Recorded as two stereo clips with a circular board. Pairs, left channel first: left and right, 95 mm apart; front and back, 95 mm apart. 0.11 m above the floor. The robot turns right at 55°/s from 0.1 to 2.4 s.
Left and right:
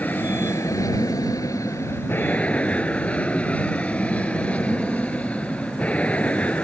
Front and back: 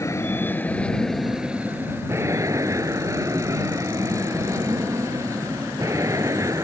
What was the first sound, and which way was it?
An aircraft, 30° left.